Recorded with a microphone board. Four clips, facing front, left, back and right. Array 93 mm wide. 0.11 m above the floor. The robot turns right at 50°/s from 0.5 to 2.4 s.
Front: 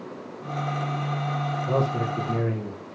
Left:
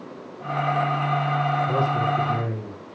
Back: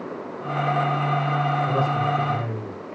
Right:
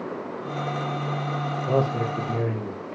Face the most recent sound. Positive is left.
turn(degrees=-45)